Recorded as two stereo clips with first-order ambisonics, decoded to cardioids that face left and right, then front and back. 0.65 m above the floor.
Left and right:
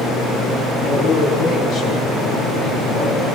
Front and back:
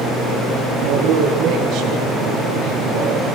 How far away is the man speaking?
About 6 m.